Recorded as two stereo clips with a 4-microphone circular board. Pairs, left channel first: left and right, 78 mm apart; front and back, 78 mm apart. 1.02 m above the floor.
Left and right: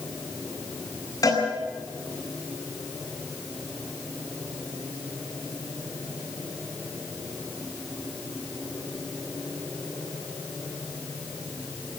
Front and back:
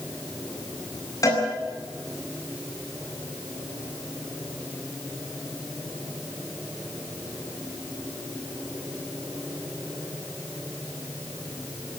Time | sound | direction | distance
1.2 | a cowbell | 45° left | 9 m